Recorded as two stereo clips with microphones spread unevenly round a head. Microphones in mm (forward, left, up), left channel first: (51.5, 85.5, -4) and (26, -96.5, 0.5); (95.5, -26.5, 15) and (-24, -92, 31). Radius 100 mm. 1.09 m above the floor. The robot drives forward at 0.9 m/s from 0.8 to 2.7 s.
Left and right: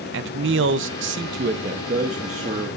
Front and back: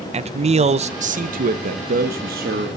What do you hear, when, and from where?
0.1 s a man speaking: 110° right, 0.9 m; by 2.8 s 160° right, 2 m